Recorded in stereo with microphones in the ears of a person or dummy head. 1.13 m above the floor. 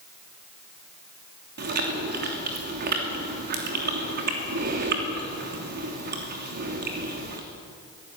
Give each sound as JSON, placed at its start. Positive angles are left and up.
{"t": 1.6, "sound": "chewing", "side_deg": -55, "distance_m": 3.0}